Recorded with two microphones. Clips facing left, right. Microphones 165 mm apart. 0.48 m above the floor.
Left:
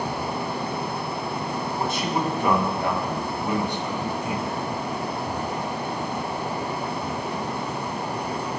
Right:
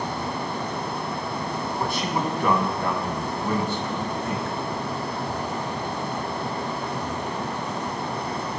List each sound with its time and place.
1.8 s a man speaking: 20° left (ahead or behind), 4.5 m; by 4.6 s 10° left (ahead or behind), 3 m